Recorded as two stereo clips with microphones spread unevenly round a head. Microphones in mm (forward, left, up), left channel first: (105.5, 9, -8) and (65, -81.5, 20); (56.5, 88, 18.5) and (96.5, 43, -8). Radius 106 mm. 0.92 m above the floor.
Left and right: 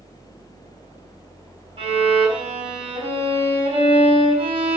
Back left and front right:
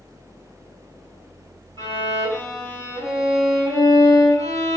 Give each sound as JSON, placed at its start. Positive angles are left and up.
{"t": 1.8, "sound": "a violin", "azimuth_deg": -95, "distance_m": 5.0}